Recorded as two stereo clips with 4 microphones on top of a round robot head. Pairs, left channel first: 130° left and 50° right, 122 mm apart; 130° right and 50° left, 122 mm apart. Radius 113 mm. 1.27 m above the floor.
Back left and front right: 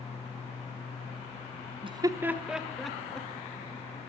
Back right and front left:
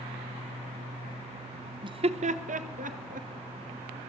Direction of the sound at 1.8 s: 5° right.